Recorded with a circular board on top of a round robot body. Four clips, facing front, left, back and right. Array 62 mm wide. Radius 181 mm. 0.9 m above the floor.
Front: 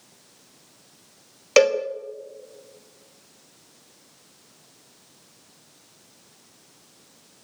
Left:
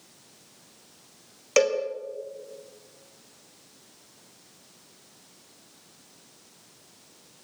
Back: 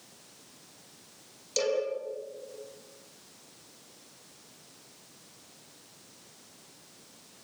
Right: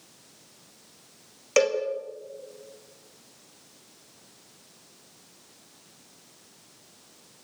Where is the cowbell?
Straight ahead, 2 m.